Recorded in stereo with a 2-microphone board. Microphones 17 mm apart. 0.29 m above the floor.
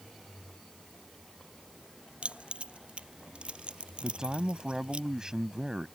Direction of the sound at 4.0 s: 35° right (ahead or behind).